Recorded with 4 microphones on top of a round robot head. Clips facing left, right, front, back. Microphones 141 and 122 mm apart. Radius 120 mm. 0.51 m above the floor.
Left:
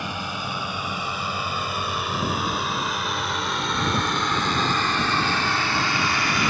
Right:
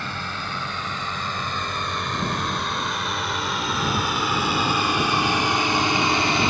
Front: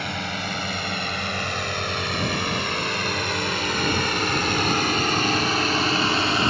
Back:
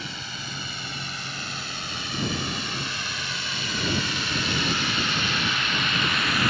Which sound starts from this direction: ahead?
A drone, at 0.0 s.